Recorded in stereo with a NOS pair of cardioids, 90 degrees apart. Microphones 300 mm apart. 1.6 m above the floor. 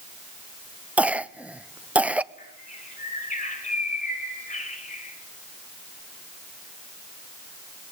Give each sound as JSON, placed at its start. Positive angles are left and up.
{"t": 1.0, "sound": "a cough", "azimuth_deg": -5, "distance_m": 0.7}
{"t": 2.4, "sound": "a bird", "azimuth_deg": 25, "distance_m": 5.0}